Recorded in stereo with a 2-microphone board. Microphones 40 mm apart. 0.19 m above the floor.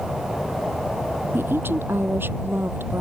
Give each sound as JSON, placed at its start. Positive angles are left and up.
{"t": 1.3, "sound": "a woman speaking", "side_deg": -70}